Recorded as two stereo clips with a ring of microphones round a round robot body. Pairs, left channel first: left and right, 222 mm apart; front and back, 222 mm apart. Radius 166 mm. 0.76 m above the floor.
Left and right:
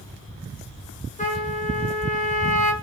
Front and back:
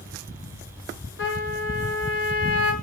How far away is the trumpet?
About 6.5 m.